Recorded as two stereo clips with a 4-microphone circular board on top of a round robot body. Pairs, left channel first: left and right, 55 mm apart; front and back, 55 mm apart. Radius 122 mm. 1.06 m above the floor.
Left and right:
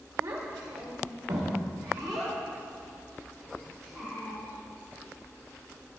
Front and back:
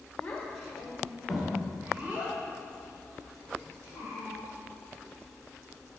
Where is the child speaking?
75° right, 3.5 m; by 4.4 s 145° right, 5.5 m.